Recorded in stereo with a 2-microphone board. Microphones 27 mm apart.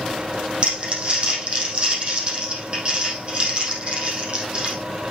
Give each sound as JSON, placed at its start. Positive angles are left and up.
{"t": 0.6, "sound": "crumpling", "side_deg": -35, "distance_m": 4.0}